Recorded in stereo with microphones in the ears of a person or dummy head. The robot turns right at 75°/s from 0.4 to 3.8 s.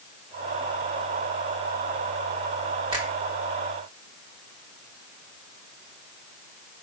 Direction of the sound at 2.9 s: 25° right (ahead or behind).